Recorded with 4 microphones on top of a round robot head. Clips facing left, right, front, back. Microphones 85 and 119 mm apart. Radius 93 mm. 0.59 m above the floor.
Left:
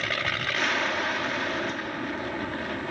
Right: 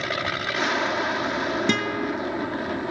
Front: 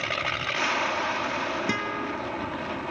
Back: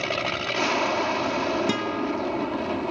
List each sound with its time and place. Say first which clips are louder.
0.0 s an aircraft: right 3 dB, back 4 dB; 145° right
1.7 s a guitar: right 7 dB, back 4 dB; 105° right